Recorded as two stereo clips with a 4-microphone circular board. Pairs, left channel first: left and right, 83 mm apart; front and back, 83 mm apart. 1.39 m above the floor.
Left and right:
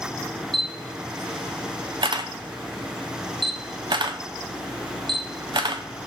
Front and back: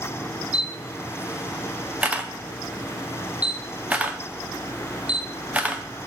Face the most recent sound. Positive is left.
turn(degrees=-105)